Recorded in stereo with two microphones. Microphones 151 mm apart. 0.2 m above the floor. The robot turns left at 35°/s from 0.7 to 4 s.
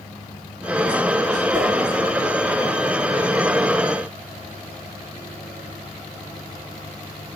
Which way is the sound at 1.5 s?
25° right (ahead or behind).